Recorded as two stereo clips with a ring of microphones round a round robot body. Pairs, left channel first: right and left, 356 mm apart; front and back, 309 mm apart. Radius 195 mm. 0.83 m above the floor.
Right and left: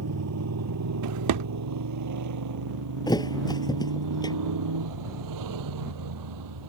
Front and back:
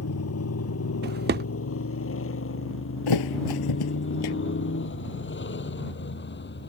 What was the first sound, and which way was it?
A motorcycle, 40° left.